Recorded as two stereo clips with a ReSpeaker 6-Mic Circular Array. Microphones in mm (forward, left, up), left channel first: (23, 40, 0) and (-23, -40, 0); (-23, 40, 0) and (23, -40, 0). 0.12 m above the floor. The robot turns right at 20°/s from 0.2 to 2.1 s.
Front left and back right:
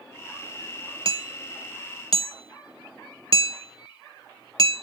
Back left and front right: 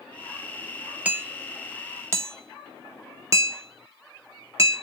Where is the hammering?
135° right, 0.7 m; by 4.8 s 115° right, 0.7 m.